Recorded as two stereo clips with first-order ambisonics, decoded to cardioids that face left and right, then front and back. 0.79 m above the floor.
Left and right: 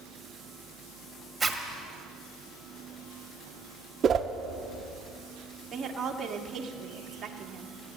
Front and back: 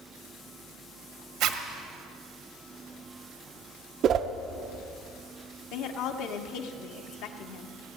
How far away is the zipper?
About 1.2 m.